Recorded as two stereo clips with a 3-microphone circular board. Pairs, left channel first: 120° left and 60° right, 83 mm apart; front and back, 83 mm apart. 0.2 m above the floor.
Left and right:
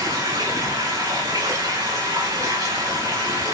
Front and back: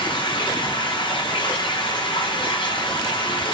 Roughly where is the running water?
Ahead.